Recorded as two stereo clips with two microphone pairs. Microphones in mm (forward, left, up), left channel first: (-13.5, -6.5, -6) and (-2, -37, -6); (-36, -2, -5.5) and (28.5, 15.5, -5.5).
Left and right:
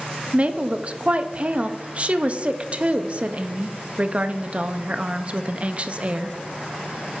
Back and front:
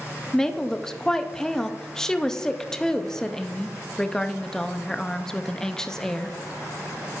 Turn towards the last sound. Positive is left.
turn(degrees=-85)